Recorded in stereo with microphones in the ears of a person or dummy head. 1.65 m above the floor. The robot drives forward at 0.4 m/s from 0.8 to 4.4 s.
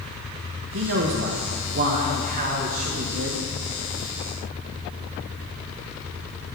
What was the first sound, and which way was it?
A man speaking, 60° right (ahead or behind).